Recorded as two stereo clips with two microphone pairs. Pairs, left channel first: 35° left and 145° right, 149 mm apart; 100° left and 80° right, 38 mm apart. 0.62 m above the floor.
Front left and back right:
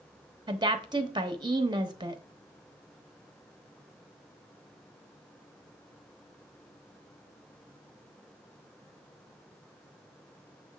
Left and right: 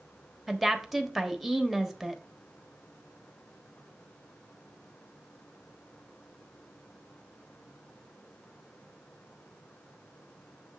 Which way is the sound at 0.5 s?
165° right.